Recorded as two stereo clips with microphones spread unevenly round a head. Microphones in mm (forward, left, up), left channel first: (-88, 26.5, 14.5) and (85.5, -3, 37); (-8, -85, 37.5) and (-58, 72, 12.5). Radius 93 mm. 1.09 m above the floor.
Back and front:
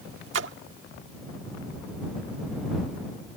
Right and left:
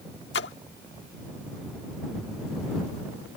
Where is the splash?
40° right.